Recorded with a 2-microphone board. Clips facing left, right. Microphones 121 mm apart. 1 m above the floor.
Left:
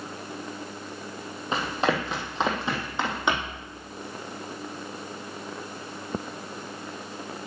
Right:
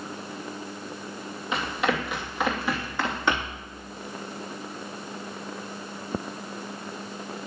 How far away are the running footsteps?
About 2.5 m.